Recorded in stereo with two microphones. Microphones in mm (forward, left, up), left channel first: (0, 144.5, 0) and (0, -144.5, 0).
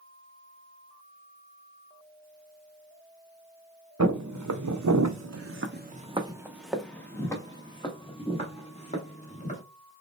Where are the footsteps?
75° right (ahead or behind), 0.9 m; by 9.6 s 25° left (ahead or behind), 2 m.